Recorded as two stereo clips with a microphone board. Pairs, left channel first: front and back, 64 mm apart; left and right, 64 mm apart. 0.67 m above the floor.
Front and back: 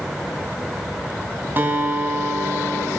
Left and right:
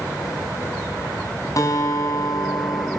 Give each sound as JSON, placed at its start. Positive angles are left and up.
{"t": 1.6, "sound": "a guitar", "azimuth_deg": 125, "distance_m": 4.5}